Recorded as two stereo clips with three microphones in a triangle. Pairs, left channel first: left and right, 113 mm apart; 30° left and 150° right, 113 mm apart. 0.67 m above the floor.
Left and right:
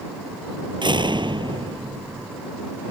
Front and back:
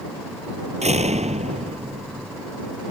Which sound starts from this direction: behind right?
A door slam, at 0.8 s.